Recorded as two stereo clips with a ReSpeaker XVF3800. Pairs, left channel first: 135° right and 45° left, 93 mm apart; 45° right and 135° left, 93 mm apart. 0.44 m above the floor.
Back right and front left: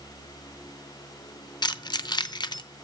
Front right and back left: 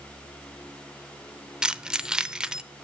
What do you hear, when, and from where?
1.6 s keys jangling: 145° right, 0.6 m